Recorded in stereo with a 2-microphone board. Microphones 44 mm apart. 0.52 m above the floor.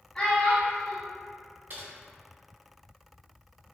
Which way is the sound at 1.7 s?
45° right (ahead or behind).